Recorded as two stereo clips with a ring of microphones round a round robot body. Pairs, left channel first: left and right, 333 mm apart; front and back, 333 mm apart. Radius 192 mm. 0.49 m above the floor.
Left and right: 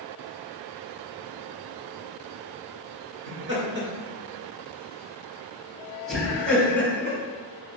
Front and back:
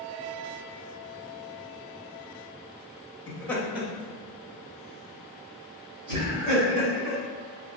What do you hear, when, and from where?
3.3 s laughter: 70° right, 1.2 m; by 7.2 s 170° left, 2.5 m